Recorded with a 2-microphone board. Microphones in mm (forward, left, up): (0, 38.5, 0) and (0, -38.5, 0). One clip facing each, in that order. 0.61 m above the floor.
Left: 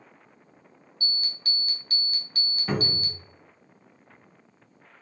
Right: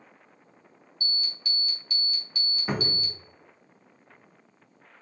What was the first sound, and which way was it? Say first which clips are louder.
An alarm: left 1 dB; 40° left (ahead or behind).